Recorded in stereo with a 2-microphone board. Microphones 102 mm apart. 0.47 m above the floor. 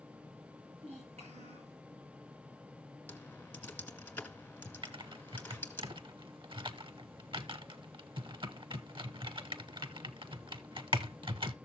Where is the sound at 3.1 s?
15° left (ahead or behind), 2 m.